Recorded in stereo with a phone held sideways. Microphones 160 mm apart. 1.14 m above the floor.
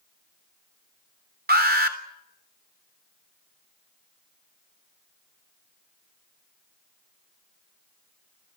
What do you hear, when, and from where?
1.5 s an alarm: 75° right (ahead or behind), 3.5 m